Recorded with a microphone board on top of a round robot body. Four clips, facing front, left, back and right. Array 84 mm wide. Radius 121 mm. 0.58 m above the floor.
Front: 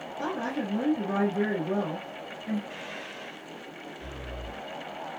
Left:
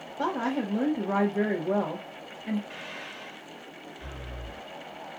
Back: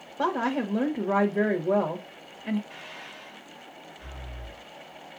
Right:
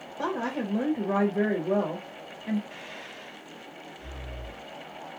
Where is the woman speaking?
170° left, 1.5 m.